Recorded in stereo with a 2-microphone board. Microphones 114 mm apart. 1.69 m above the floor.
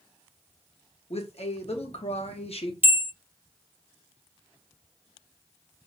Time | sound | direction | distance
1.1 | a man speaking | 65° left (ahead or behind) | 3 m
2.8 | a bell | 20° right (ahead or behind) | 0.7 m